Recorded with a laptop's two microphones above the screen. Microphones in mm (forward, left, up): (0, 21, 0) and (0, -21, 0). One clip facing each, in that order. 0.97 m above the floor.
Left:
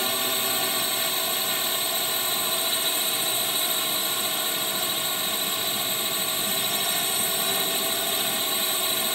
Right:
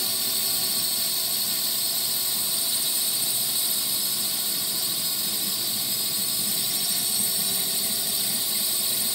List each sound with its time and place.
0.0 s a drone: 40° left (ahead or behind)